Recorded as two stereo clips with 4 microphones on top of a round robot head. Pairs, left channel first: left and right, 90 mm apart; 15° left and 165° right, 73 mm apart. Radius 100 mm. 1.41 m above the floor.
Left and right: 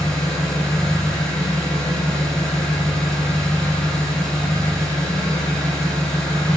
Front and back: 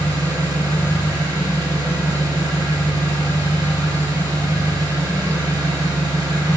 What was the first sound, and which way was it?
An engine running, 160° left.